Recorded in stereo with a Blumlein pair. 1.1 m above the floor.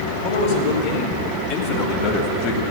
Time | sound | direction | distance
0.2 | a man speaking | 40° left | 4 m